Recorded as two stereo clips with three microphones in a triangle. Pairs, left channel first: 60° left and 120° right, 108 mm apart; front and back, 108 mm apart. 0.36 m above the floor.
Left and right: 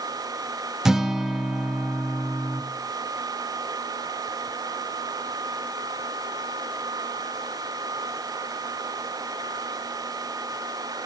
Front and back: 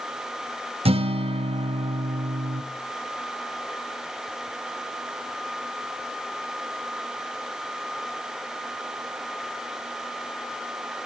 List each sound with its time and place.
0.8 s a guitar: 155° left, 0.7 m